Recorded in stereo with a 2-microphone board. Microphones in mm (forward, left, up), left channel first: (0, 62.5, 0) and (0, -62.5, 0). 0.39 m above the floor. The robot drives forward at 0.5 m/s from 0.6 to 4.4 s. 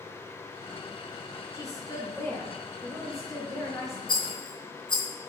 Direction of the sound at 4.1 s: 40° left (ahead or behind).